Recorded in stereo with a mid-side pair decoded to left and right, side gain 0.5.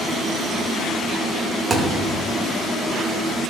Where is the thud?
35° right, 2.5 m.